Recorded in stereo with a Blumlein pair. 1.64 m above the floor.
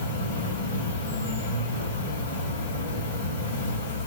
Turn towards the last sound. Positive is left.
turn(degrees=65)